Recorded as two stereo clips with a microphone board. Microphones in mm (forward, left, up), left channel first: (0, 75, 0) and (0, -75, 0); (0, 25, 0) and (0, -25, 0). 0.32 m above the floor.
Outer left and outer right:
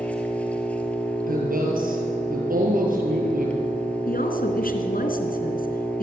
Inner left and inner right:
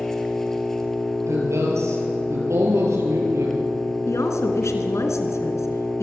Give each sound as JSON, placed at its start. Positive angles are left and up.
{"t": 0.0, "sound": "an engine running", "side_deg": 10, "distance_m": 3.0}
{"t": 1.3, "sound": "a woman speaking", "side_deg": -70, "distance_m": 7.0}
{"t": 4.1, "sound": "a woman speaking", "side_deg": 75, "distance_m": 3.5}